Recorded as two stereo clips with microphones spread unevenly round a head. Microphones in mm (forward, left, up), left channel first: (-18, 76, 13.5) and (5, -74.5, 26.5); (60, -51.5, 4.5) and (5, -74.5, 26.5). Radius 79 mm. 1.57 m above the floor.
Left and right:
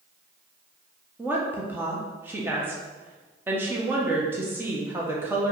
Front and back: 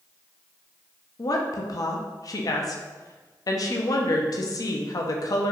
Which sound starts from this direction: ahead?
A woman speaking, at 1.2 s.